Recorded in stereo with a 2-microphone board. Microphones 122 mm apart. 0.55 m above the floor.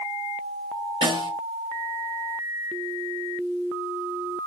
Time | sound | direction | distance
1.0 | a snare drum | 45° right (ahead or behind) | 4 m